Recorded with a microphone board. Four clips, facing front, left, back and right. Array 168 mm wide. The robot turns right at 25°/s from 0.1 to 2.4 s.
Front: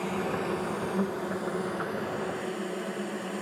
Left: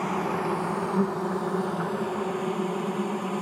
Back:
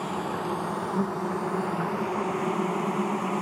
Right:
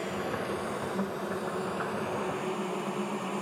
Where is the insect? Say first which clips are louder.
Left 6 dB, back 1 dB; 110° left, 1.3 m; by 3.4 s 165° left, 1.3 m.